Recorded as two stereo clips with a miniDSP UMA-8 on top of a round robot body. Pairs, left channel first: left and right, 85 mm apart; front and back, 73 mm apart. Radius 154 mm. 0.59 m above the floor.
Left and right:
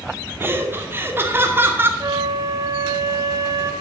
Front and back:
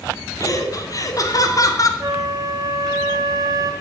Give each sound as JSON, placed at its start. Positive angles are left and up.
{"t": 0.4, "sound": "laughter", "azimuth_deg": -30, "distance_m": 2.5}
{"t": 2.0, "sound": "a flute", "azimuth_deg": -140, "distance_m": 1.5}